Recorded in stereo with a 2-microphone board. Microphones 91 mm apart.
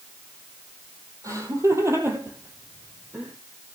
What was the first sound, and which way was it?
Laughter, 35° right (ahead or behind).